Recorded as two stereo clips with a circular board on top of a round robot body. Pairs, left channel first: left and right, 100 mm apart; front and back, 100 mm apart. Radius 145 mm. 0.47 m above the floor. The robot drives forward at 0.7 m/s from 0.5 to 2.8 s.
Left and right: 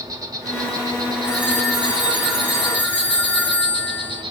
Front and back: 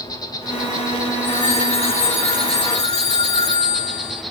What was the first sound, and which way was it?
An insect, 45° right.